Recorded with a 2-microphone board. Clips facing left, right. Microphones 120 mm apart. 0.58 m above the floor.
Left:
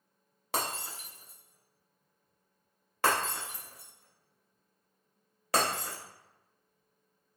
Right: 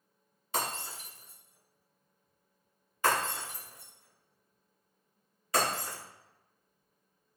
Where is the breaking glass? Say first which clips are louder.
Even; 75° left (ahead or behind), 0.9 m.